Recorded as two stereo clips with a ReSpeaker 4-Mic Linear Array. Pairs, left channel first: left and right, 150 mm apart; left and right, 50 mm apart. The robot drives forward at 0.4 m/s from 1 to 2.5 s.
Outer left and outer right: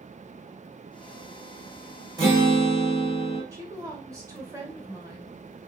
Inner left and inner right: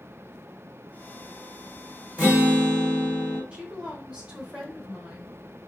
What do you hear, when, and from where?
2.2 s a guitar: 25° right (ahead or behind), 1.7 m
3.5 s a woman speaking: 20° right (ahead or behind), 1.1 m